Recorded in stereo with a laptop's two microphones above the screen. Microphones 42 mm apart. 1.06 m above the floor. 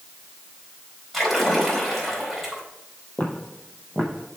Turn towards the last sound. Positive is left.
turn(degrees=0)  # may be behind; listen again after turning